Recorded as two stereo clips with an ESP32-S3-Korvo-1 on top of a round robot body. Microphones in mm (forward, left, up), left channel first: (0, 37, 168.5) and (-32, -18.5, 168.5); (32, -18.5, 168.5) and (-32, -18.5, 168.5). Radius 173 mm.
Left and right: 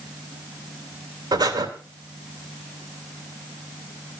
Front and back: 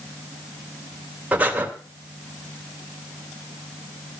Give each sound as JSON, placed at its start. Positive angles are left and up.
{"t": 1.3, "sound": "breathing", "azimuth_deg": -115, "distance_m": 3.0}